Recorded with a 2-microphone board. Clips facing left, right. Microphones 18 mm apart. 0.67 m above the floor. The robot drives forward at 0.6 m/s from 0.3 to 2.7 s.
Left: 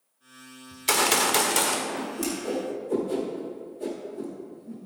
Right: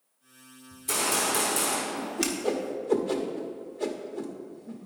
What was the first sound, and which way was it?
A gunshot, 85° left.